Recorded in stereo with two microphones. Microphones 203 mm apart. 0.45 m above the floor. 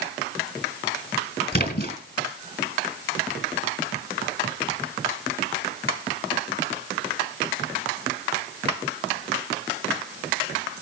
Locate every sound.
1.5 s a splash: 45° left (ahead or behind), 4 m